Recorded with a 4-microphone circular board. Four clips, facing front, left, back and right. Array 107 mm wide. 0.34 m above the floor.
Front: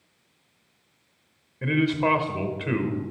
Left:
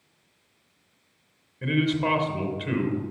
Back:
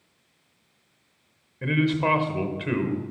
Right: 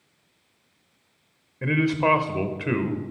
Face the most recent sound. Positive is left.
turn(degrees=-90)